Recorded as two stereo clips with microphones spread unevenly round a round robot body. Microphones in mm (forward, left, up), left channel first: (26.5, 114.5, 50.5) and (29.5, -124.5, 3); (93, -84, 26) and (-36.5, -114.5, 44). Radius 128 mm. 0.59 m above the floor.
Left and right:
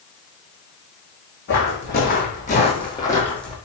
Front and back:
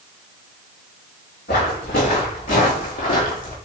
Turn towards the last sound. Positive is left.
turn(degrees=10)